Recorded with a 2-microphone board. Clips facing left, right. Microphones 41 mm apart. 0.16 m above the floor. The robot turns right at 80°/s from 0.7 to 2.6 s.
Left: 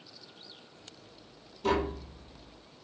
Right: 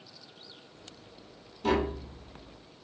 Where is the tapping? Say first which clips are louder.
Right 1 dB; 10° right (ahead or behind), 1.2 m; by 2.9 s 80° right, 1.2 m.